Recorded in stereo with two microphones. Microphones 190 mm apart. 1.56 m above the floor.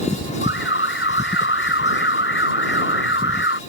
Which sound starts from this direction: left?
An alarm, at 0.4 s.